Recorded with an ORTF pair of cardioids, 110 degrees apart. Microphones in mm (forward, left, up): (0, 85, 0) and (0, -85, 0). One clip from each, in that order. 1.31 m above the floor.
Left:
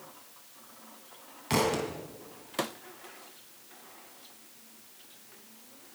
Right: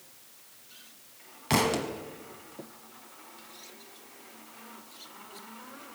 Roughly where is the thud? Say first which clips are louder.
Right 1 dB; ahead.